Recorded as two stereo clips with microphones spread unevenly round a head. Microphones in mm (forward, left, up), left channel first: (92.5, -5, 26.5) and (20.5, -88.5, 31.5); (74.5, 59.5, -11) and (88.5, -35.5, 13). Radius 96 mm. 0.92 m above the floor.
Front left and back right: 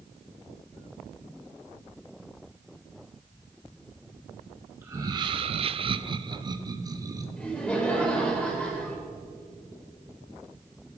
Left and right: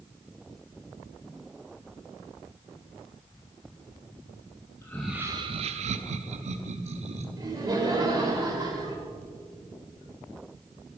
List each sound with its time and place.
4.8 s laughter: 155° left, 0.7 m; by 7.3 s 70° right, 1.8 m
7.4 s laughter: 40° right, 3 m